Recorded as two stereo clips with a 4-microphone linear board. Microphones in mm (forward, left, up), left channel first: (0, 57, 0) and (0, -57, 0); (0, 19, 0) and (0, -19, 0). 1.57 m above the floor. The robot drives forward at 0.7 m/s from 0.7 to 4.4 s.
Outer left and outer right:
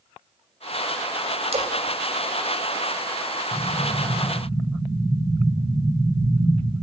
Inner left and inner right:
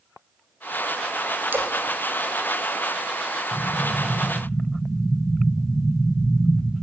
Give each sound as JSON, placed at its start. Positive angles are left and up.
{"t": 1.5, "sound": "a splash", "side_deg": -65, "distance_m": 3.0}
{"t": 3.5, "sound": "an explosion", "side_deg": -65, "distance_m": 4.0}